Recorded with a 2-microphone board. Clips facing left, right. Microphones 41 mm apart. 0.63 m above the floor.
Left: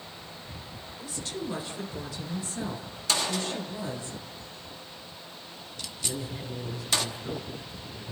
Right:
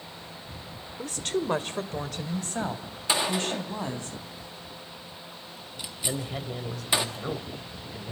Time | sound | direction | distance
1.0 | a woman speaking | 60° right (ahead or behind) | 1.5 m
3.1 | a gunshot | 20° right (ahead or behind) | 1.4 m
6.0 | a man speaking | 65° right (ahead or behind) | 3 m